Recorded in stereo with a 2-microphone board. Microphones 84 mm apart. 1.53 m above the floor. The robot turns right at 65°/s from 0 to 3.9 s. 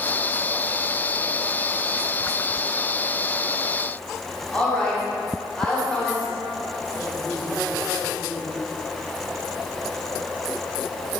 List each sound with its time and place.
4.5 s a woman speaking: 10° left (ahead or behind), 2.0 m